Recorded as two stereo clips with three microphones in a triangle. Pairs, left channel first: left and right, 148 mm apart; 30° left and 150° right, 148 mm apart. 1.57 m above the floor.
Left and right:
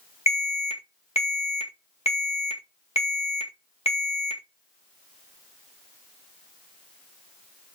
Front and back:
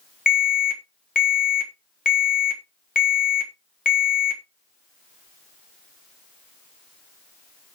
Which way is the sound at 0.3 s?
45° left.